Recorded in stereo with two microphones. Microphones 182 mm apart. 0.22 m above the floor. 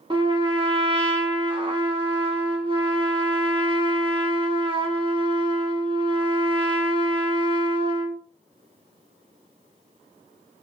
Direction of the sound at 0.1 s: 30° right (ahead or behind).